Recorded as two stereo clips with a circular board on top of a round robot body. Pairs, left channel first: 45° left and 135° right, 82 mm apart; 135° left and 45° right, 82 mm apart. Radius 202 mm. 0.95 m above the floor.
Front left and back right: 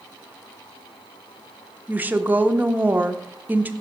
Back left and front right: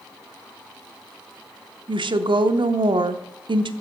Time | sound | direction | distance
1.9 | a woman speaking | 65° right | 0.7 m